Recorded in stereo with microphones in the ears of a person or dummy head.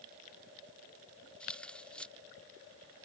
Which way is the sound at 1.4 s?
5° left (ahead or behind).